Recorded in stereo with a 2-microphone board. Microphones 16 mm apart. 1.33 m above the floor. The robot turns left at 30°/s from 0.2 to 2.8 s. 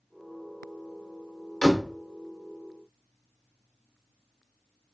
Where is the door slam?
80° left, 0.8 m; by 1.9 s 70° left (ahead or behind), 0.8 m.